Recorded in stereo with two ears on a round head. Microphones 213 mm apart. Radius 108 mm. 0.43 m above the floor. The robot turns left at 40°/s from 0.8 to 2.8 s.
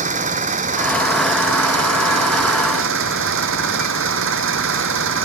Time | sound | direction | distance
0.0 | an engine running | 35° right | ?